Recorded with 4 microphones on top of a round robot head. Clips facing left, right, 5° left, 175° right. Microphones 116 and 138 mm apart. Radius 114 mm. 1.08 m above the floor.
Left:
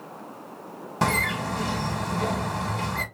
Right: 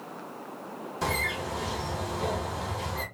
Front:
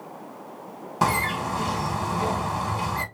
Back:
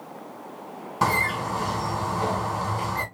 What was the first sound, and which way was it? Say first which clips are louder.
A bird: left 6 dB, front 1 dB; 80° left.